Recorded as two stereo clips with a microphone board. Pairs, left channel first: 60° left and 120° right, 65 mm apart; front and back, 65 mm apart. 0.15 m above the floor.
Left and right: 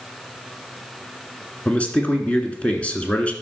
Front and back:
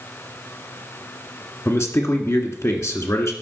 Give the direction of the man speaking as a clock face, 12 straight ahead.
12 o'clock.